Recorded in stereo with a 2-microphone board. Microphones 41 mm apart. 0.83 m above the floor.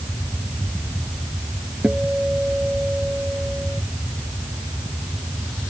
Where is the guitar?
25° right (ahead or behind).